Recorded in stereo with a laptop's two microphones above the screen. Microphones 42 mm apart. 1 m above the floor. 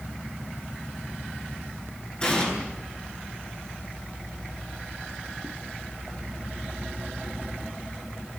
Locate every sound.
2.2 s an explosion: 25° left (ahead or behind), 7.5 m